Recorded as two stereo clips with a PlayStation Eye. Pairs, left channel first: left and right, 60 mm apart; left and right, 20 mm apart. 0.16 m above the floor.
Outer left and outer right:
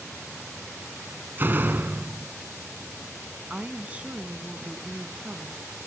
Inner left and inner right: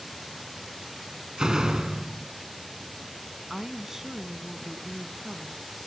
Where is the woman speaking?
25° right (ahead or behind), 1.1 m.